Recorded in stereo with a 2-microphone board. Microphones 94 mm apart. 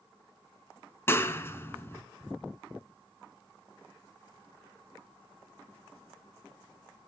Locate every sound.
1.1 s a clap: 25° left (ahead or behind), 1.7 m